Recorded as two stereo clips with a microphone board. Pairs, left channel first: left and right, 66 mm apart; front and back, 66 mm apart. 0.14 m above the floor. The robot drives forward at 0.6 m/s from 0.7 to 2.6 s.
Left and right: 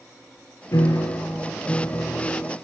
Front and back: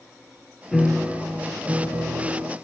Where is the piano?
90° left, 0.6 m; by 2.5 s 150° left, 1.2 m.